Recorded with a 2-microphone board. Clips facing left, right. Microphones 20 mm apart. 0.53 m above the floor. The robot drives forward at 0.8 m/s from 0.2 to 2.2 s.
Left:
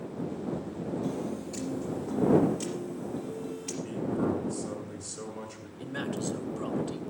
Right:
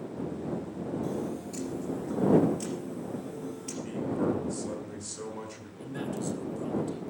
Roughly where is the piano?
Centre.